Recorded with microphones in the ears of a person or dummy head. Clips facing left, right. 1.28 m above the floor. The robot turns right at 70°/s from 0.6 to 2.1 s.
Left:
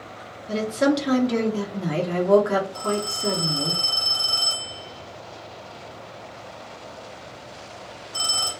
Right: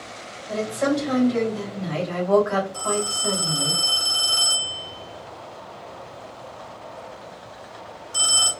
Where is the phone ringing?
35° right (ahead or behind), 1.9 m.